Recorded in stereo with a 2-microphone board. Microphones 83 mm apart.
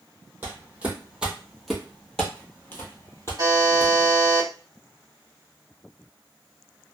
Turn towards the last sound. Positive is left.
turn(degrees=-45)  # may be behind; listen again after turning